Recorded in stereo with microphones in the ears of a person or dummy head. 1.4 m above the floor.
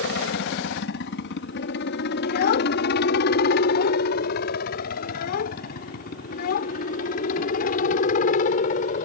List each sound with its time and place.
0.0 s a helicopter: 60° left (ahead or behind); by 9.1 s 45° left (ahead or behind)
2.2 s a child speaking: 55° left (ahead or behind)